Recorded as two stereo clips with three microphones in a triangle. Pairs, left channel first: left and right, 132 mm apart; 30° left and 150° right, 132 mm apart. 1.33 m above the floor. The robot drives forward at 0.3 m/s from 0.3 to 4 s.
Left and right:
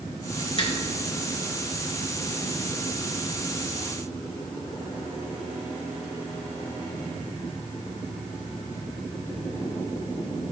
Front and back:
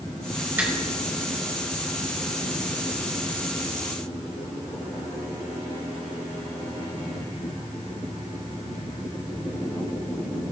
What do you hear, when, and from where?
0.6 s a finger snap: 135° left, 3.5 m